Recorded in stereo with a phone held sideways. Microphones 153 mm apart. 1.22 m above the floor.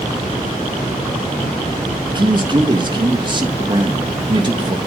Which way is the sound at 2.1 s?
30° right (ahead or behind).